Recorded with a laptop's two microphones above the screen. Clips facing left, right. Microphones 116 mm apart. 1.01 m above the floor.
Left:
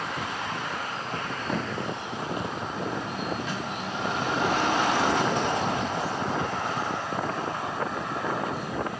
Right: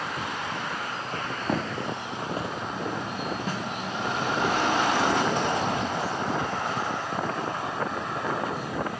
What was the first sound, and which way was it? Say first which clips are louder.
Footsteps: right 2 dB; 50° right (ahead or behind).